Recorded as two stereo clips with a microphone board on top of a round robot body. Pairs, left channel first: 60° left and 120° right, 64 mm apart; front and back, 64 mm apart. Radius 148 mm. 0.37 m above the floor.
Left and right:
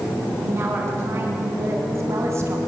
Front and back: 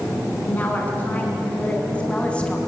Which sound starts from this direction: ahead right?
A woman speaking, at 0.4 s.